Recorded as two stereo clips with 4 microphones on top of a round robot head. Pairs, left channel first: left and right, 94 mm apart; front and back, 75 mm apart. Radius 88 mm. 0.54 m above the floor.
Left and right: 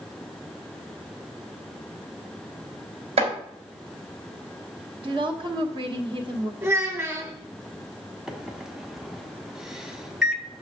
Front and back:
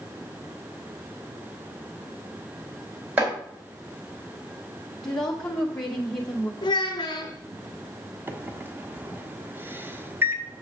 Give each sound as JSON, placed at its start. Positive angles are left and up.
{"t": 3.2, "sound": "chopping", "azimuth_deg": -105, "distance_m": 4.0}
{"t": 5.0, "sound": "a woman speaking", "azimuth_deg": -80, "distance_m": 1.8}
{"t": 6.6, "sound": "a child speaking", "azimuth_deg": -25, "distance_m": 1.5}
{"t": 8.3, "sound": "a microwave", "azimuth_deg": -170, "distance_m": 1.0}